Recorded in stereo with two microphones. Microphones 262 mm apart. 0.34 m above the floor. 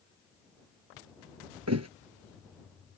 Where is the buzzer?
No buzzer in this recording.